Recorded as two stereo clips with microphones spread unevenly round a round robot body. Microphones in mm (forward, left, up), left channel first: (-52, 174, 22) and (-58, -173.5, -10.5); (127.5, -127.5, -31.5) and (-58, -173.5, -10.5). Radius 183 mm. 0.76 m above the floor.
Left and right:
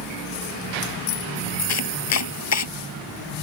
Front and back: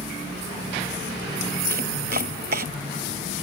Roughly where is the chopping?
Behind left.